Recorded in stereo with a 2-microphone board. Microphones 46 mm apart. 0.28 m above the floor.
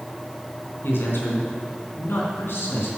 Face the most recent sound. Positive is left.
turn(degrees=60)  # may be behind; listen again after turning